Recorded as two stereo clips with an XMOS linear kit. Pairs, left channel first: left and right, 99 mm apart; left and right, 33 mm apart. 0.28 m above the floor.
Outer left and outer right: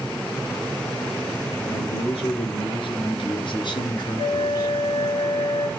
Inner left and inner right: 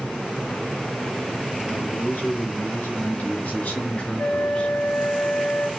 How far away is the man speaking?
About 5.5 m.